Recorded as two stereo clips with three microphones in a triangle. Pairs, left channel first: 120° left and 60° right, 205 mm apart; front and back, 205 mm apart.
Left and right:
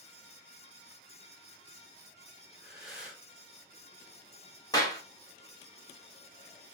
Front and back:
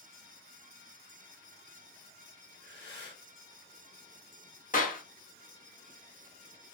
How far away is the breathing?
About 0.9 m.